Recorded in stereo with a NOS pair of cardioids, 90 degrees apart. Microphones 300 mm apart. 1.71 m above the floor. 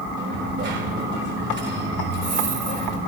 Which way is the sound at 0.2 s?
40° right.